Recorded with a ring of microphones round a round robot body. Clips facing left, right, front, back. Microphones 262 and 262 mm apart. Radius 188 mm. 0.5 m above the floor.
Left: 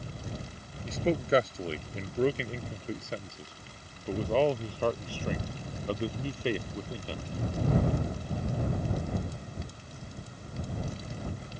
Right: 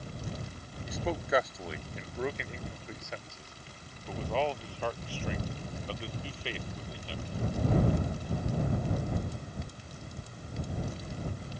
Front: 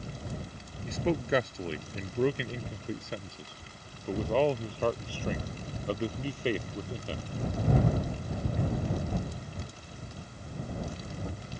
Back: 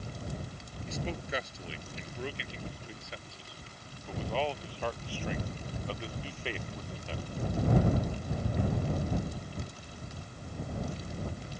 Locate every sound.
0.8 s a man speaking: 30° left; by 7.2 s 50° left